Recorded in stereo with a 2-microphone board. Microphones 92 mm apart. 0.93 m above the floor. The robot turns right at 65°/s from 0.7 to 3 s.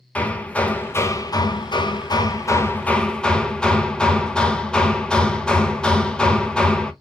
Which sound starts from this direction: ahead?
Hammering, at 0.1 s.